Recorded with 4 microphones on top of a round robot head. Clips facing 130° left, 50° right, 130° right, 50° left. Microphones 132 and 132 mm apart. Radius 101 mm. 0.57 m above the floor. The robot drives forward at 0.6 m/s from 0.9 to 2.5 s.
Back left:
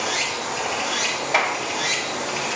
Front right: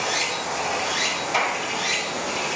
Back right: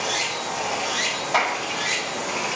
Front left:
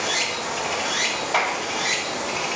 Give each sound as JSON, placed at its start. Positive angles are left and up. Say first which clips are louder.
{"t": 0.0, "sound": "running water", "louder": "even, even", "azimuth_deg": 60, "distance_m": 1.2}
{"t": 1.3, "sound": "a clap", "louder": "back left 2 dB, back right 1 dB", "azimuth_deg": 135, "distance_m": 0.9}